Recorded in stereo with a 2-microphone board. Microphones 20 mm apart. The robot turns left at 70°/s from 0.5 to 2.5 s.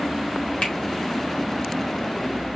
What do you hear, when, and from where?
0.6 s a finger snap: 80° left, 1.1 m; by 0.8 s 85° left, 1.1 m